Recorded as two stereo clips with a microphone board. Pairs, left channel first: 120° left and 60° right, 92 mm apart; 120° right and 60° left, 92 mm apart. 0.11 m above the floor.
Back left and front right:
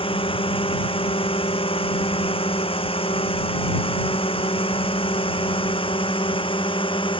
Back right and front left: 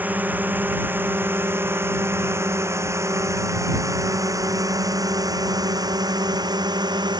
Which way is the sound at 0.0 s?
130° left.